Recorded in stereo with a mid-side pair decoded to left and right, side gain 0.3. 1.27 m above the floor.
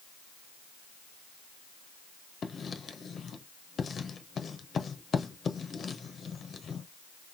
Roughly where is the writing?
Ahead left.